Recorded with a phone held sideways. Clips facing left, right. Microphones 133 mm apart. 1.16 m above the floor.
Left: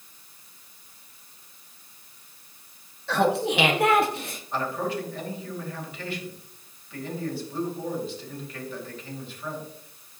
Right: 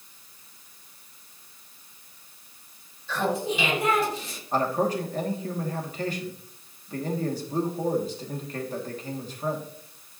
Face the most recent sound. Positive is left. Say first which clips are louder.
# right 4 dB
turn(degrees=-45)  # may be behind; listen again after turning